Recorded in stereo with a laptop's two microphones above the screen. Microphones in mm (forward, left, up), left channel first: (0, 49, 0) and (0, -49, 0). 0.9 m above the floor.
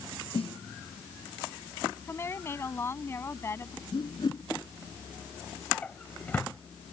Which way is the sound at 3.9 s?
50° left (ahead or behind).